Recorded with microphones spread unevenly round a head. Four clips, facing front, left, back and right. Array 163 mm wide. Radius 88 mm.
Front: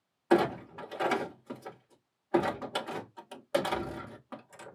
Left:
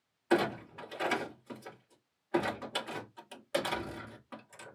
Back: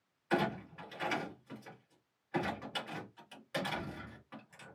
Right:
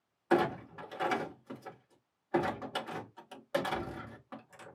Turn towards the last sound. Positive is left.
turn(degrees=-5)